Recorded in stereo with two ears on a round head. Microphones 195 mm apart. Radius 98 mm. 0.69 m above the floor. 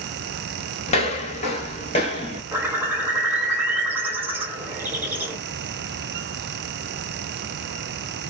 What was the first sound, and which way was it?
Footsteps, 30° left (ahead or behind).